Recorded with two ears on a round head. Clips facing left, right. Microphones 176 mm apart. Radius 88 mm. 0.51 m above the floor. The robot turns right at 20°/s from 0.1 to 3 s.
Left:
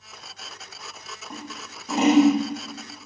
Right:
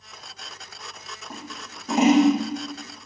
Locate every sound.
1.3 s scissors: 5° right (ahead or behind), 7 m; by 2.3 s 25° right (ahead or behind), 7 m